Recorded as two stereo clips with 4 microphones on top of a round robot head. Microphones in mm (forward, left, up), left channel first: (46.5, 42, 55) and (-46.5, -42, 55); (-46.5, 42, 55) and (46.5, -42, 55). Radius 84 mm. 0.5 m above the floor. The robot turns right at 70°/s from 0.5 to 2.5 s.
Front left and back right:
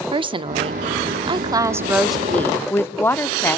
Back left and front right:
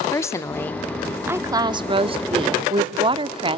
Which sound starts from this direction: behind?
A woman speaking, at 0.1 s.